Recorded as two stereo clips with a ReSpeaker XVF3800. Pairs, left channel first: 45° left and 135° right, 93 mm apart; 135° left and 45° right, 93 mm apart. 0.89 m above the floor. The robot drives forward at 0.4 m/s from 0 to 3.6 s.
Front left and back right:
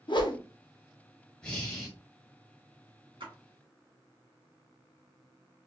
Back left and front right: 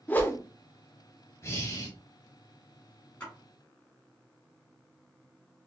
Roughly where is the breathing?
Left.